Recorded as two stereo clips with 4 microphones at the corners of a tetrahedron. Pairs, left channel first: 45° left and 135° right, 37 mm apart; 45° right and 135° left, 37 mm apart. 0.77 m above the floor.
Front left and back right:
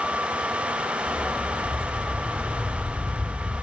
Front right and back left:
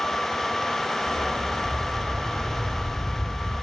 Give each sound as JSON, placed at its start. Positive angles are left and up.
{"t": 1.1, "sound": "a dog barking", "azimuth_deg": 170, "distance_m": 3.5}